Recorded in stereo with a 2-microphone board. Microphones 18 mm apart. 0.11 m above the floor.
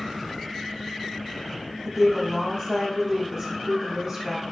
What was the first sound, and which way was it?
A woman speaking, 30° right (ahead or behind).